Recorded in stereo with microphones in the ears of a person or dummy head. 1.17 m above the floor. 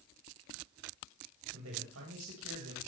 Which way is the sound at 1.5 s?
85° right.